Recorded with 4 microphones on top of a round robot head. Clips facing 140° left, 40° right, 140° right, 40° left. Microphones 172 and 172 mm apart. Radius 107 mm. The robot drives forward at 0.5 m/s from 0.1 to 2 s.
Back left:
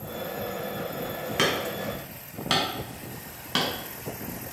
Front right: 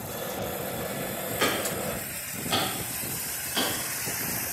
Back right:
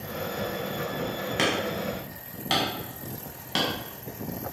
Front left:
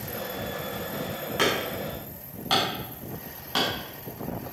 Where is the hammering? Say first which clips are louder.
Back left 1 dB, front left 1 dB; 150° left, 5 m.